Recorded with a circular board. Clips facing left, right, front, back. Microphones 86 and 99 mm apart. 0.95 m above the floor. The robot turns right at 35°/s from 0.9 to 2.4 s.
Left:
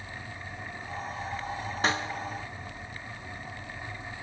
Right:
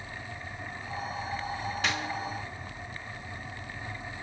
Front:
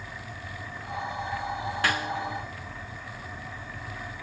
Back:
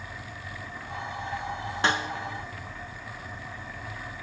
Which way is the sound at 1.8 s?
125° left.